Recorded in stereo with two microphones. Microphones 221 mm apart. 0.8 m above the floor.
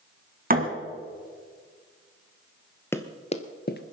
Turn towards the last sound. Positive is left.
turn(degrees=50)  # may be behind; listen again after turning